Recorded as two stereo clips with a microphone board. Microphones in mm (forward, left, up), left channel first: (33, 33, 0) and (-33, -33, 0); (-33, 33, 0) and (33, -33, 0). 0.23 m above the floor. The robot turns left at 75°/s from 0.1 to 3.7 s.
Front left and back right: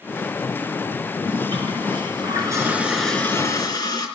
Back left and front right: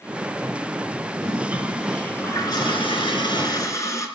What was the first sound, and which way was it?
A toilet flushing, 90° right.